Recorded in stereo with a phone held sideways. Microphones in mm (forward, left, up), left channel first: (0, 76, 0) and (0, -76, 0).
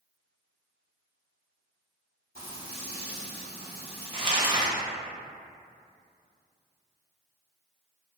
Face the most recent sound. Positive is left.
turn(degrees=-30)  # may be behind; listen again after turning